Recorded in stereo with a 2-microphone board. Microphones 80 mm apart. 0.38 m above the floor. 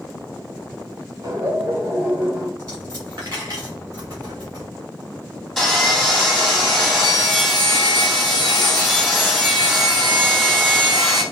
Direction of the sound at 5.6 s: 5° left (ahead or behind).